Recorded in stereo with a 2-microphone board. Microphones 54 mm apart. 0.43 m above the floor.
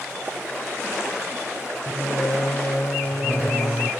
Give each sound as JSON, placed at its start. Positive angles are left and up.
{"t": 1.9, "sound": "singing", "side_deg": 60, "distance_m": 0.8}